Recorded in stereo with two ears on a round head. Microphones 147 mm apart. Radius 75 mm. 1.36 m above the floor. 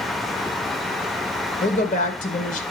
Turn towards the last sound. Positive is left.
turn(degrees=45)  # may be behind; listen again after turning